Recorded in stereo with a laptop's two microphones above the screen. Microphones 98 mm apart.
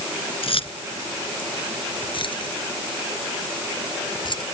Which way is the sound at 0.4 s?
70° left (ahead or behind).